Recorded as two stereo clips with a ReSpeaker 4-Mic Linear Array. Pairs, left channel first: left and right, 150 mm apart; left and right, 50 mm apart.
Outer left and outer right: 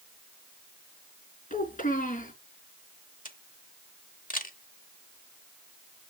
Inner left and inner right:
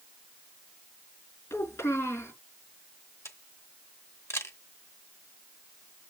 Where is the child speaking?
70° left (ahead or behind), 4.5 m.